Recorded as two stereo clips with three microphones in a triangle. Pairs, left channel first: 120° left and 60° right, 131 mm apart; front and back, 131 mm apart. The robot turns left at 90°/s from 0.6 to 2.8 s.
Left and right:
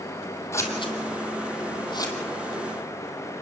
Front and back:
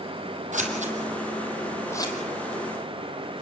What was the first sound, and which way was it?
Scissors, 175° right.